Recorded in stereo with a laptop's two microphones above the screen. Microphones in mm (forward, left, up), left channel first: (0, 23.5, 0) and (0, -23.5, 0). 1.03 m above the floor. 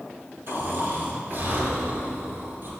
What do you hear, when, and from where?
0.5 s snoring: 45° right (ahead or behind), 3.5 m